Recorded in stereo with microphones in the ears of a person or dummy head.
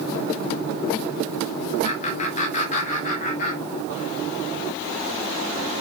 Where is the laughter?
35° left (ahead or behind), 1.2 m; by 4.1 s 45° left (ahead or behind), 3.5 m.